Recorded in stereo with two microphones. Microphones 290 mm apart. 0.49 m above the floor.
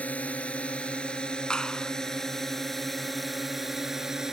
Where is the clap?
5° left (ahead or behind).